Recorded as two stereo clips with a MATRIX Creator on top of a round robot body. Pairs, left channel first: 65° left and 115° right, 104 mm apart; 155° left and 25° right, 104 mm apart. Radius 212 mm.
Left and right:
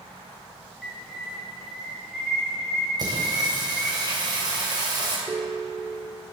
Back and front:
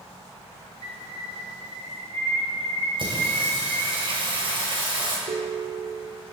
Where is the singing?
60° right, 3.5 m.